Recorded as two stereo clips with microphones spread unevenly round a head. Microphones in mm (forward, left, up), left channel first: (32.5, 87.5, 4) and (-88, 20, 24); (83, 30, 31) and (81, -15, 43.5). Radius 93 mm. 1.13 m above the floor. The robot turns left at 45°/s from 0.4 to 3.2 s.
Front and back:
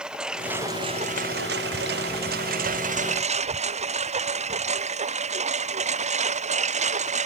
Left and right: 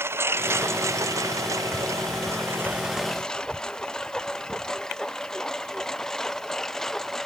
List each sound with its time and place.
0.0 s a lawn mower: 65° right; by 7.3 s 175° left